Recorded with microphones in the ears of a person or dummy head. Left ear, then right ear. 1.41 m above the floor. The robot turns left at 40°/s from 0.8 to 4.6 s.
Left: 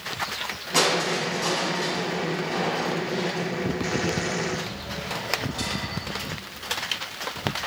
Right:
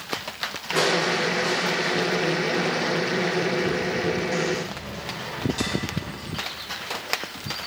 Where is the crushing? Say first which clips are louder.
Right 1 dB; 110° left, 7.5 m; by 6.3 s 40° right, 7.5 m.